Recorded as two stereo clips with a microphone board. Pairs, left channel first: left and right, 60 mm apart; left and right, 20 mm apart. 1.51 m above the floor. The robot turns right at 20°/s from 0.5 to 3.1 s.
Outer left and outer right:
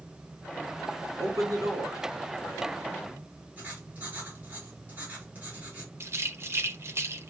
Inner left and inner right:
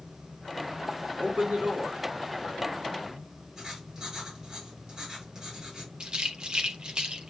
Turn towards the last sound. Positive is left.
turn(degrees=-45)  # may be behind; listen again after turning